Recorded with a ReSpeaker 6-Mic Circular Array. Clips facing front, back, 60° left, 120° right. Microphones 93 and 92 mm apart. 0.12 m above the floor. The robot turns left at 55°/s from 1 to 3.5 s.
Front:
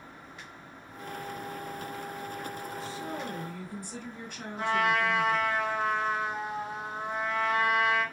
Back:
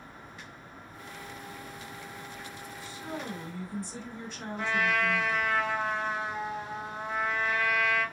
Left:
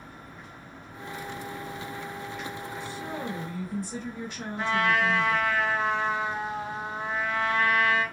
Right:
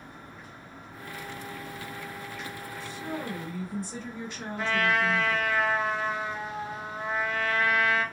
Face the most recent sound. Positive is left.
turn(degrees=10)